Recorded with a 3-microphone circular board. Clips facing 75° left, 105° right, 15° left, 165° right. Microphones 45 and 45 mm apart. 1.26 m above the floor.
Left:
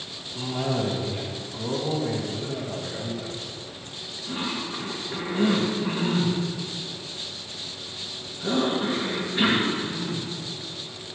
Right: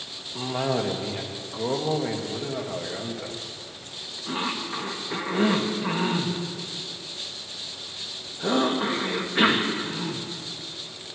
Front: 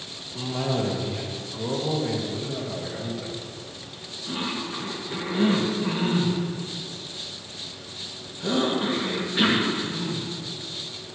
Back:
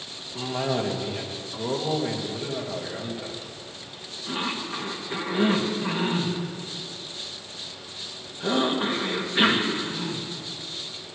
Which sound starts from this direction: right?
A cough, at 0.3 s.